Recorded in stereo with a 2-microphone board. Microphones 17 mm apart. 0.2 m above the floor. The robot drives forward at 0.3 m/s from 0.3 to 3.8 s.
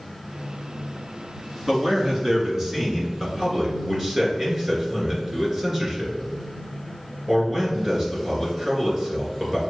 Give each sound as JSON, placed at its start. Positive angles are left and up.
{"t": 1.7, "sound": "a man speaking", "side_deg": -20, "distance_m": 1.7}